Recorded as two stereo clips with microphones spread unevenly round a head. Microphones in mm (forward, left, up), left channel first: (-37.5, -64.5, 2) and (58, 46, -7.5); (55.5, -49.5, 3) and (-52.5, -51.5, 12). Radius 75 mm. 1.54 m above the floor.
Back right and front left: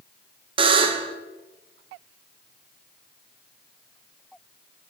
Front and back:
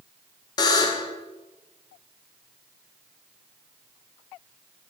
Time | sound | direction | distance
0.6 | a buzzer | 30° left | 0.7 m